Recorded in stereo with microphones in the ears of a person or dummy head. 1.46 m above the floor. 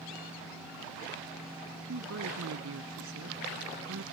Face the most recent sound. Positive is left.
turn(degrees=-65)  # may be behind; listen again after turning